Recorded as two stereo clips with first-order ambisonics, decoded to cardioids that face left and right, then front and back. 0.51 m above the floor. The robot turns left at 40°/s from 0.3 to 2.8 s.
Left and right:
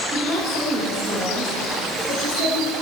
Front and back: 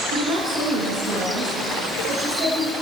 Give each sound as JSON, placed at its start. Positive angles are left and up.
{"t": 0.1, "sound": "a woman speaking", "azimuth_deg": -155, "distance_m": 6.0}